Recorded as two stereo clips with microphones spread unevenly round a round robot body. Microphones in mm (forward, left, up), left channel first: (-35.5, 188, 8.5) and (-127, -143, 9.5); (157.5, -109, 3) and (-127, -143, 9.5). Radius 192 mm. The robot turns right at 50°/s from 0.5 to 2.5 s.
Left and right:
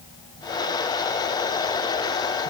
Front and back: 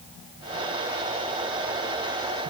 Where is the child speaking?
I don't hear a child speaking.